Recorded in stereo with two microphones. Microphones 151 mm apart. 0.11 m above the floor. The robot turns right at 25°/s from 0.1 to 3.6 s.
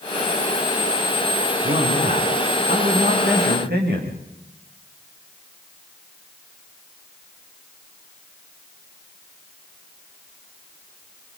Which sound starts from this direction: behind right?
A man speaking, at 1.6 s.